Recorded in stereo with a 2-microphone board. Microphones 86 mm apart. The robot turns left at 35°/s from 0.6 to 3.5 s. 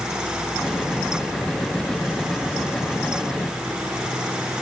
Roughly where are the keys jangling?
No keys jangling in this recording.